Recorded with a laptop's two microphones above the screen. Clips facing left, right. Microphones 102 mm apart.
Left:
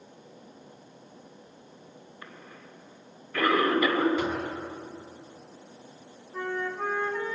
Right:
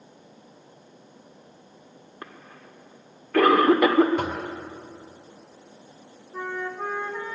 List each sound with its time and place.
2.2 s a cough: 75° right (ahead or behind), 2.5 m
4.2 s knocking: 55° right (ahead or behind), 4 m
6.3 s a flute: 10° right (ahead or behind), 1.5 m